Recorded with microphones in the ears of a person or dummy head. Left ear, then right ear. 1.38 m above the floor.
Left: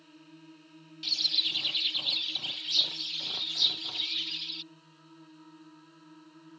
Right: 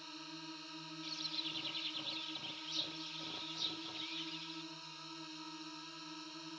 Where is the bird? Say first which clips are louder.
Left 15 dB; 30° left (ahead or behind).